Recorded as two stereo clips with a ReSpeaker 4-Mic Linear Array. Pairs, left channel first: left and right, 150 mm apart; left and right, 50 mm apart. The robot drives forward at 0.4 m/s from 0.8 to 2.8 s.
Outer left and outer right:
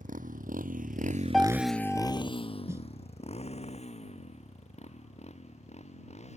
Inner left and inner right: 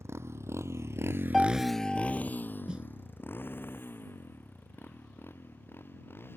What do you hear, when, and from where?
0.0 s a motorcycle: 60° right (ahead or behind); by 6.4 s 45° left (ahead or behind)
1.3 s a piano: centre (ahead or behind)
2.7 s a snare drum: 20° right (ahead or behind)